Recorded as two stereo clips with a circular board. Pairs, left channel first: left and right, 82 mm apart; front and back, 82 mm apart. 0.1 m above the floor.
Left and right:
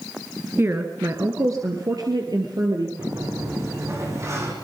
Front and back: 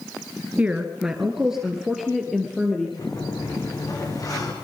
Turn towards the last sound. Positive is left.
turn(degrees=-40)